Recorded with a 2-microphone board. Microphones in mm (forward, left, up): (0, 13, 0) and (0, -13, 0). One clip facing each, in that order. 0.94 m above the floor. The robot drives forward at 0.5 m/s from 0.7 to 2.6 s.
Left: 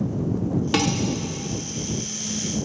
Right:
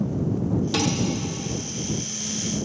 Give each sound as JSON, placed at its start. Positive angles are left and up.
{"t": 0.7, "sound": "dishes clattering", "side_deg": 85, "distance_m": 1.4}